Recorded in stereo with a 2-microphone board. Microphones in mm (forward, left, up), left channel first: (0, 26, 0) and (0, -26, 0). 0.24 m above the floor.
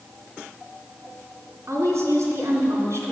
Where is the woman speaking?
65° right (ahead or behind), 3.5 m.